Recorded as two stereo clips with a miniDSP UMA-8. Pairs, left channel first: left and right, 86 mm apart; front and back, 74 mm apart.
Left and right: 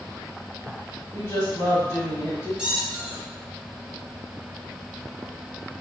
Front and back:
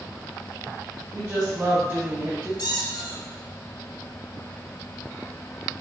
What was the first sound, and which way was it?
A woman speaking, 140° left.